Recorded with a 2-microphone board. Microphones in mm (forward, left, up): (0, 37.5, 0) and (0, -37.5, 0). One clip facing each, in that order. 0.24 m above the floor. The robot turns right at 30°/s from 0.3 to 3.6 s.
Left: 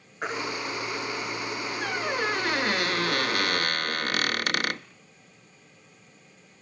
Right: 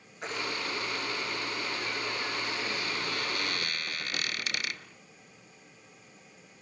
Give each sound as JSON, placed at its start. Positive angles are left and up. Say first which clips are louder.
{"t": 0.2, "sound": "a baby crying", "louder": "left 6 dB", "side_deg": 50, "distance_m": 2.5}
{"t": 1.8, "sound": "a squeak", "louder": "left 7 dB", "azimuth_deg": 70, "distance_m": 0.6}